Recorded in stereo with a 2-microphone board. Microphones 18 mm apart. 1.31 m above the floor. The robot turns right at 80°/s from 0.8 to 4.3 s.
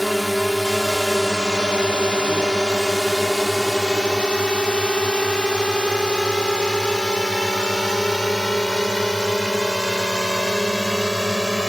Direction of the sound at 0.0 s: 5° right (ahead or behind).